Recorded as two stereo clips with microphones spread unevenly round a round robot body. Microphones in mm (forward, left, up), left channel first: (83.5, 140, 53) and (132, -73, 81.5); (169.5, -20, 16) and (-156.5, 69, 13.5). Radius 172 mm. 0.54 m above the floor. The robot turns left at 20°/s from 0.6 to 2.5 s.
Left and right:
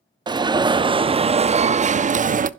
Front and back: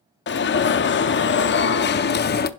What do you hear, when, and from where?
0.3 s an alarm: 5° right, 0.6 m; by 2.5 s 45° right, 0.6 m